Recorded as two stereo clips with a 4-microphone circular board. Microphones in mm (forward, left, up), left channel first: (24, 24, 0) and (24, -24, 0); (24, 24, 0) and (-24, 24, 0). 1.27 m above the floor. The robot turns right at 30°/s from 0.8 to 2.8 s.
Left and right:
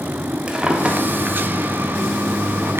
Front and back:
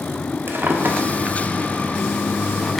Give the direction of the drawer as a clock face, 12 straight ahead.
5 o'clock.